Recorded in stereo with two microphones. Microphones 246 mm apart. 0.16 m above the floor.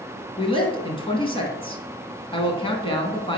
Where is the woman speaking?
20° left (ahead or behind), 1.2 m.